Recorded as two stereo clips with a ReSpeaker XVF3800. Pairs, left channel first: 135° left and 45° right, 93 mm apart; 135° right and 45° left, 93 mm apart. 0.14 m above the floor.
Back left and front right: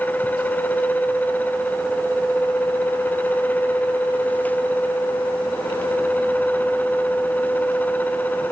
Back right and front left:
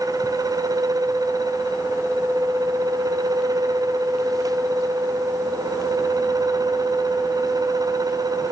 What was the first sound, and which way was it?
Only background noise.